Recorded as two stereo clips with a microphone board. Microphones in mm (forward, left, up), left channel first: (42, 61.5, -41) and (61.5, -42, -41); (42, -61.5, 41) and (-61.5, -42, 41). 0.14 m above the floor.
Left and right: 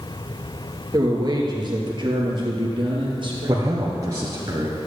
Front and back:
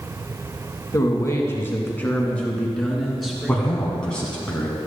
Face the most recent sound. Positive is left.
turn(degrees=-85)